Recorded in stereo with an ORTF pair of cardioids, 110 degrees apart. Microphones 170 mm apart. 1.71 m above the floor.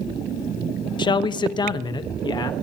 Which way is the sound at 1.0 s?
25° left.